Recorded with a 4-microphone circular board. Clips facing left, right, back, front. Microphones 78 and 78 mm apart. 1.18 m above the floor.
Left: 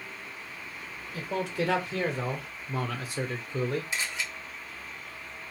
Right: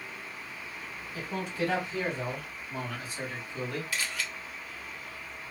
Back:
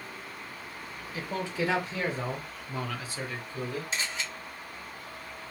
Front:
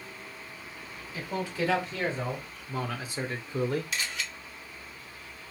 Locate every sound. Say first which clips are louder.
1.1 s a man speaking: left 3 dB, even; 115° left, 1.6 m; by 3.9 s 25° left, 0.6 m
3.9 s a camera shutter: left 1 dB, even; 145° left, 0.8 m